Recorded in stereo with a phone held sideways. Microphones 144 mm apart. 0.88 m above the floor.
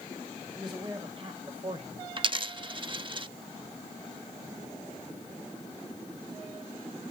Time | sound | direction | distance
0.6 | a man speaking | 35° right (ahead or behind) | 5.5 m
2.2 | a dropped coin | 35° right (ahead or behind) | 0.7 m